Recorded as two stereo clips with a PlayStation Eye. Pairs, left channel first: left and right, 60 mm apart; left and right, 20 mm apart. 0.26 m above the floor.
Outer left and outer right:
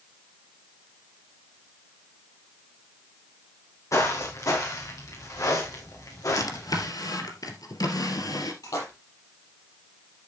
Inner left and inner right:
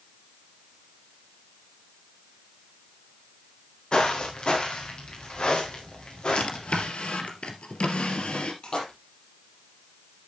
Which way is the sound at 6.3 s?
75° left (ahead or behind).